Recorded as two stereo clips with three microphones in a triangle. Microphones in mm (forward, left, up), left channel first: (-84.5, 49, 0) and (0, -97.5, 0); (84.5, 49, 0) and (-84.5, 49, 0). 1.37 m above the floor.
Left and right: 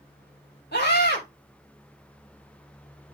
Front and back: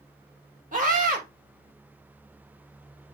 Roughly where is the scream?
Behind left.